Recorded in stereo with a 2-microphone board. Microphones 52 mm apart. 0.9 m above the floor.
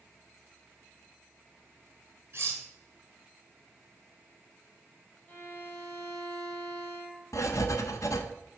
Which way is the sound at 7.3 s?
75° left (ahead or behind).